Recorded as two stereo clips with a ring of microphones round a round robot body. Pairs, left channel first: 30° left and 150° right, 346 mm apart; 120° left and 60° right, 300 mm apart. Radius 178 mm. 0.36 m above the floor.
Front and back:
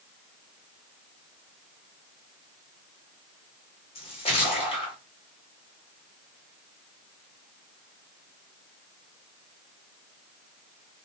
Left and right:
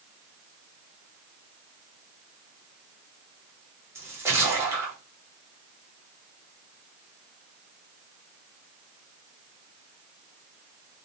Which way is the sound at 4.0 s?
Straight ahead.